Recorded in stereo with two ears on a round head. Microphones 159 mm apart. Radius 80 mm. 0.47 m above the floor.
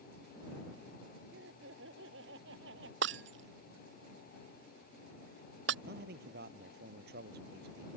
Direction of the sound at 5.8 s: 60° right (ahead or behind).